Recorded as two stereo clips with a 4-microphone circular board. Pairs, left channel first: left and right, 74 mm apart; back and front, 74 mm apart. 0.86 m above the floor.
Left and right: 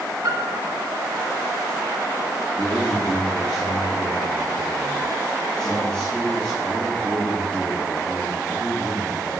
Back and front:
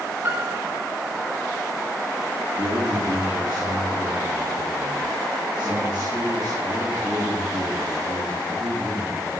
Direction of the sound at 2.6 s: 10° left.